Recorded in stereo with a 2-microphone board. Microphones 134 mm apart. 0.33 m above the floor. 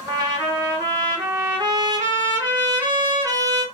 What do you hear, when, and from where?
0.1 s a trumpet: 30° right (ahead or behind), 1.2 m